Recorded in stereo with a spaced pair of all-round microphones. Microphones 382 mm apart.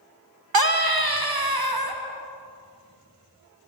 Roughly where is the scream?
Right.